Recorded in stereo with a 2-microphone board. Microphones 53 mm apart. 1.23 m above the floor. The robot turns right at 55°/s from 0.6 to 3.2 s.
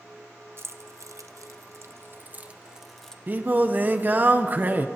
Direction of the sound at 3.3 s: 35° right (ahead or behind).